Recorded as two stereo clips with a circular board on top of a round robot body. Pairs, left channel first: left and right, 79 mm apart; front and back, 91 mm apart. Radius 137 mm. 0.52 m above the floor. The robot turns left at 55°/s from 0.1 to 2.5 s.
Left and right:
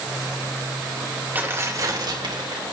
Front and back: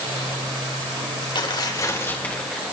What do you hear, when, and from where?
1.4 s tearing paper: 25° right, 3 m; by 2.7 s 90° right, 3 m